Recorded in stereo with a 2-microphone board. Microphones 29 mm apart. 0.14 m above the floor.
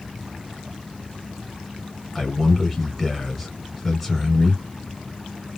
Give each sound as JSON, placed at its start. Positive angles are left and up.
{"t": 2.1, "sound": "a man speaking", "side_deg": 5, "distance_m": 1.5}